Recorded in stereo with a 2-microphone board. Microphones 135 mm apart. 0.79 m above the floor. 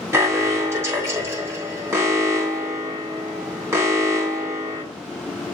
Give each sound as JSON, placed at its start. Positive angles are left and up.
{"t": 0.1, "sound": "an alarm", "side_deg": -20, "distance_m": 3.0}